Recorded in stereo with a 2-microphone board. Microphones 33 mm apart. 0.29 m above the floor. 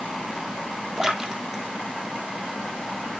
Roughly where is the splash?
Centre.